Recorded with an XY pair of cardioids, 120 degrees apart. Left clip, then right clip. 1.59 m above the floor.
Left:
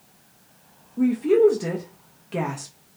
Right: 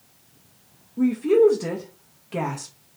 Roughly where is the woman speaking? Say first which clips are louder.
Even; ahead.